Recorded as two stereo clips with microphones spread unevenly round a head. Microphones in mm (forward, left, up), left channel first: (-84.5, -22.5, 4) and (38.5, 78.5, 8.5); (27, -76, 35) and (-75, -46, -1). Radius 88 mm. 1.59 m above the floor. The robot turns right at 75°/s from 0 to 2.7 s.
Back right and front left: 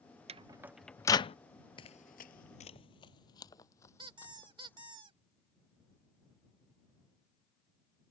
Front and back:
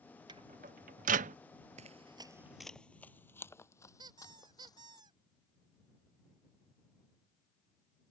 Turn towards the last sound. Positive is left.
turn(degrees=90)